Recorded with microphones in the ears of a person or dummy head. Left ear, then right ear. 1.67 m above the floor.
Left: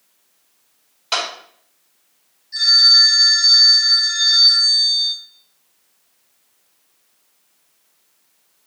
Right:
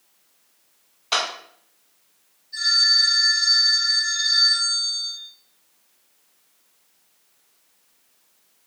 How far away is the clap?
About 1.6 m.